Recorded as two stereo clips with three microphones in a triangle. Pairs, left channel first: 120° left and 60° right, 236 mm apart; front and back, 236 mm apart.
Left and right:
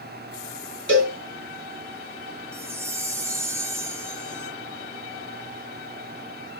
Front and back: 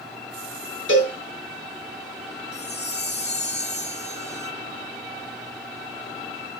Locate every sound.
0.9 s a cowbell: 25° right, 3 m
2.5 s a chime: 15° left, 1.4 m